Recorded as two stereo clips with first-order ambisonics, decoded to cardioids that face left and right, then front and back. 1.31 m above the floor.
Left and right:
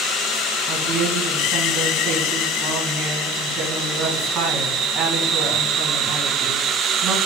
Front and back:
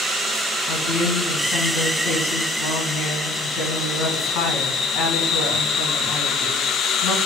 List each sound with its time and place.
0.7 s a woman speaking: 20° right, 1.6 m